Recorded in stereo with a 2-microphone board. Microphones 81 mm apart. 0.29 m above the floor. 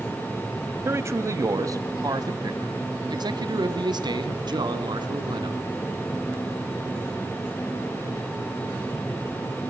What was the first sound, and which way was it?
A man speaking, 30° right (ahead or behind).